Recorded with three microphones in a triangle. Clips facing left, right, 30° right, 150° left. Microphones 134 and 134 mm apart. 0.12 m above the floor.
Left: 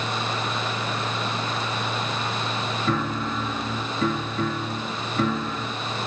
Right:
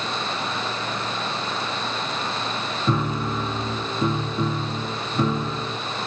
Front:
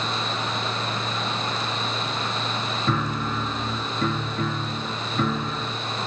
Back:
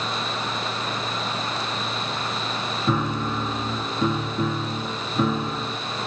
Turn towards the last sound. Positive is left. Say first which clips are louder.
# right 3 dB, back 3 dB
turn(degrees=-140)